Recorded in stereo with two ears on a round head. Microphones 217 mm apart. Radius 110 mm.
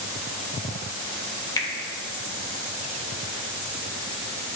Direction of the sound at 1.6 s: 15° left (ahead or behind).